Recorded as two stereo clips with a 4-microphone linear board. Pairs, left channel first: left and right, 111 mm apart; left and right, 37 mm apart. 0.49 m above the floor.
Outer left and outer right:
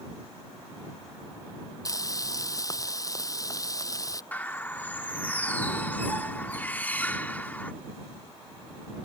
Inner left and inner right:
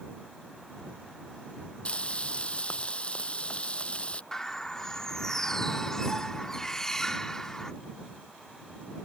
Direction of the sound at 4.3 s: 15° left (ahead or behind).